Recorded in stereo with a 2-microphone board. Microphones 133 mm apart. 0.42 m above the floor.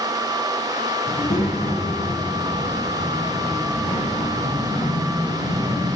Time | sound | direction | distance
1.1 | a child speaking | 75° left (ahead or behind) | 3.5 m